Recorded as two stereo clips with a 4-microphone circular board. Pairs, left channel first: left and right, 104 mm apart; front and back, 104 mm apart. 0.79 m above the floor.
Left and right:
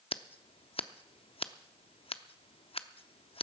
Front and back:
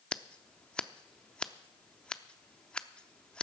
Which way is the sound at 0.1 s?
80° left.